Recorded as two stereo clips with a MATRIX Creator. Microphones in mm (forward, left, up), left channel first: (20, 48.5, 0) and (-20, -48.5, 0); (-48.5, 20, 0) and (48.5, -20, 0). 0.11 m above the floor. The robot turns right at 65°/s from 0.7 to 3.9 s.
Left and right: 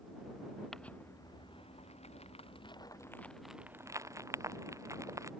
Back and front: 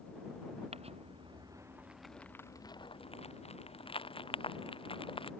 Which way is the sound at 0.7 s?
20° right.